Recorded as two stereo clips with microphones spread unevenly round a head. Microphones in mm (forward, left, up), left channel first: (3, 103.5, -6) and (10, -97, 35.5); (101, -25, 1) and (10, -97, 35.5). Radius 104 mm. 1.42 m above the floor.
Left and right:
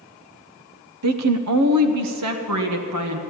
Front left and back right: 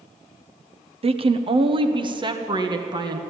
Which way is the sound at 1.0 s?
100° right.